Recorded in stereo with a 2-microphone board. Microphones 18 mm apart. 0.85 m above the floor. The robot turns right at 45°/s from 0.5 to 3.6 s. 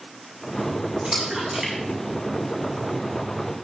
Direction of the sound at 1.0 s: 50° right (ahead or behind).